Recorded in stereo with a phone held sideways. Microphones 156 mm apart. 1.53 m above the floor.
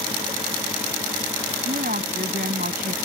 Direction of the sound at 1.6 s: 70° right (ahead or behind).